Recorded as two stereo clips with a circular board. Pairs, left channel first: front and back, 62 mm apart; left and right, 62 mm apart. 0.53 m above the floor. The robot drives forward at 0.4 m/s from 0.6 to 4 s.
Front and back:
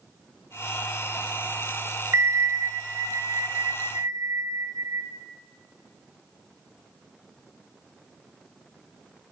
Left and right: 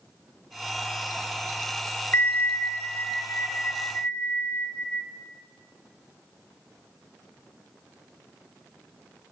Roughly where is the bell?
Behind left.